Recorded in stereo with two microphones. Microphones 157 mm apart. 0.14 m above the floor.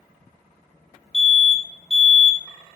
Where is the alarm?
40° right (ahead or behind), 3.5 m.